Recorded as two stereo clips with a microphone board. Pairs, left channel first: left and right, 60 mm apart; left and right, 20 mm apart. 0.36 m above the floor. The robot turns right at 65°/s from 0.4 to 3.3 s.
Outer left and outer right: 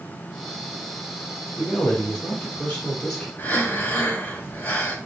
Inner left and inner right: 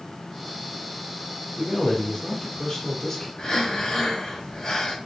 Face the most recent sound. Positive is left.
turn(degrees=35)  # may be behind; listen again after turning